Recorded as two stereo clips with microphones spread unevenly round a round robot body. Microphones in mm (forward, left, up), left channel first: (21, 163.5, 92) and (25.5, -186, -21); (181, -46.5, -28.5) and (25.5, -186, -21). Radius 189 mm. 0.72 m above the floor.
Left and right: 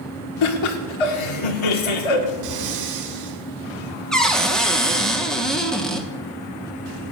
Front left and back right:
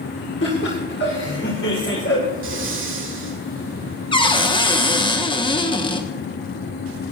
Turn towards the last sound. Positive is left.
turn(degrees=-15)